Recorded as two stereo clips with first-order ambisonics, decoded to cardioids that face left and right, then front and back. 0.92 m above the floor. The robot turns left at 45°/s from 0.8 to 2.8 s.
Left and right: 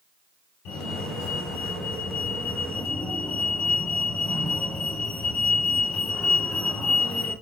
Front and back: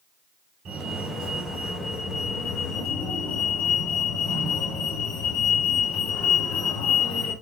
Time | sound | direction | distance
0.7 | a fire alarm | 125° left | 4 m